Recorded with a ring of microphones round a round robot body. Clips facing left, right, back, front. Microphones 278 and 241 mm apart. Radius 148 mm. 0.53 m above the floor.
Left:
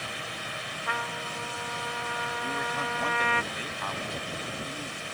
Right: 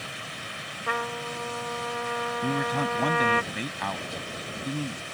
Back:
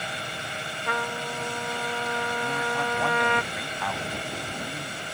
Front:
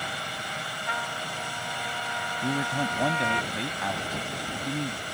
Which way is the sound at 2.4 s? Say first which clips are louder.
Right 9 dB, front 1 dB; 70° right.